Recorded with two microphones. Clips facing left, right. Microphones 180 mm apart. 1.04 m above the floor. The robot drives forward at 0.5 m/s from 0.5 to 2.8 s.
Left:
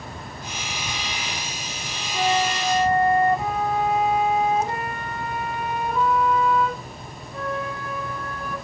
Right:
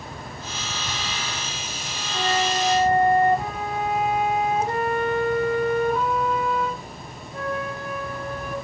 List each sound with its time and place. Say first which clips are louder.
2.1 s a flute: left 1 dB; 25° right (ahead or behind), 5.5 m